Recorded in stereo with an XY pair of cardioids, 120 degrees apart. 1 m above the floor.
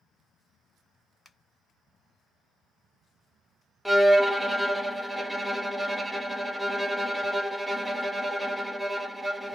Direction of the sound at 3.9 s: Straight ahead.